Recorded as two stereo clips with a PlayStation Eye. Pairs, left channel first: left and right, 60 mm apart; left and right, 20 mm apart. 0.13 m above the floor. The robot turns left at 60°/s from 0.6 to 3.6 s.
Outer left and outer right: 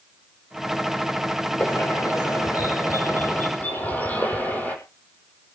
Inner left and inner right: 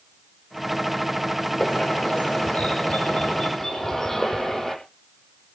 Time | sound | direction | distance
1.6 | a bird | 145° left | 6 m